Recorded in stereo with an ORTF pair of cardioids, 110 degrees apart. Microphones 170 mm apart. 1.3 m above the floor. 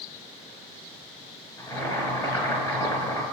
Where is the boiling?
20° left, 6.5 m.